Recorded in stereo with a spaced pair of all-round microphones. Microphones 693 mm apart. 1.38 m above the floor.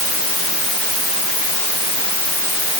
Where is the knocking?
No knocking in this recording.